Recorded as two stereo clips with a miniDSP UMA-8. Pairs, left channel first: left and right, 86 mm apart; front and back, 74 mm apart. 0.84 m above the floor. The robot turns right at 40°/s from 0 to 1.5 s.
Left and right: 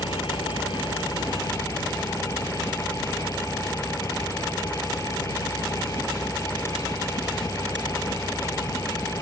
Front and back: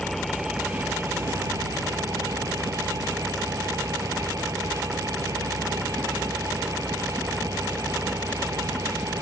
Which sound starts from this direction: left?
An engine running, at 0.0 s.